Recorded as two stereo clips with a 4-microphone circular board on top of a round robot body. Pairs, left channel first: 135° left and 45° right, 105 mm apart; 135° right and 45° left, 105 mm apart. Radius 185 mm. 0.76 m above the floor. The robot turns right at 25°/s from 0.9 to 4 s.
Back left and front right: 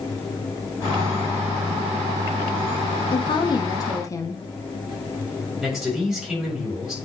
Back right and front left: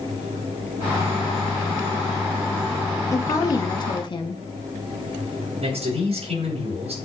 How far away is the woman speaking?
About 1.5 m.